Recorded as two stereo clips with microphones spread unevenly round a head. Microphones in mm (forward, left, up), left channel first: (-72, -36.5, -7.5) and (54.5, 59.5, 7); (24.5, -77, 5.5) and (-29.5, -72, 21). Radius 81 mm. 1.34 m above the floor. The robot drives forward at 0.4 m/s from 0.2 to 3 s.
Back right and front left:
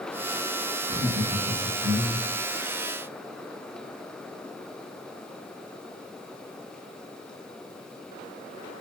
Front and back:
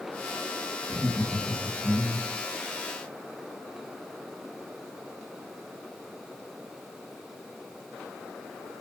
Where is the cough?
No cough in this recording.